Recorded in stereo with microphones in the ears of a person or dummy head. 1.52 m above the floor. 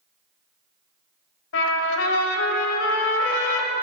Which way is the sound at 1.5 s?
70° left (ahead or behind).